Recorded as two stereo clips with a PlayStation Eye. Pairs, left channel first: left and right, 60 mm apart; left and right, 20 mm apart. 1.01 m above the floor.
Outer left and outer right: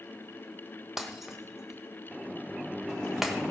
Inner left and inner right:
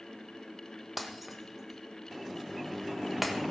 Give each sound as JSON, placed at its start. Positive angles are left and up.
{"t": 1.0, "sound": "breaking glass", "side_deg": -5, "distance_m": 1.3}